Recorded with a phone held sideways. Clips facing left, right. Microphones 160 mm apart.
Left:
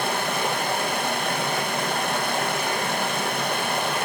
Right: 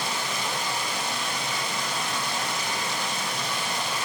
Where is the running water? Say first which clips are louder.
Left 6 dB; 60° left (ahead or behind), 0.7 m.